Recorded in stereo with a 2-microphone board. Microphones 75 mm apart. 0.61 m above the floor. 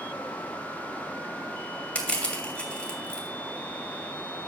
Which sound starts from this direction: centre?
Crushing, at 1.9 s.